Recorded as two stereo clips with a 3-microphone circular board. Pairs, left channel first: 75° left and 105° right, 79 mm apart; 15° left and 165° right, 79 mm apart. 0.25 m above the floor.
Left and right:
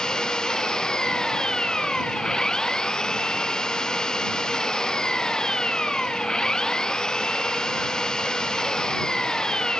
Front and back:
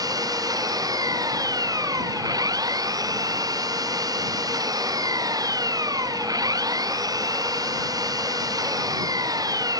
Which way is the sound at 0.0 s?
155° left.